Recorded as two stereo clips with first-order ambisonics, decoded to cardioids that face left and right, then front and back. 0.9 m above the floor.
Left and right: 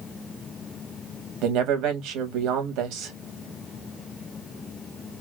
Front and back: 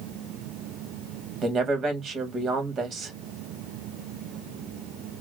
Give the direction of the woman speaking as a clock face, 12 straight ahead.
4 o'clock.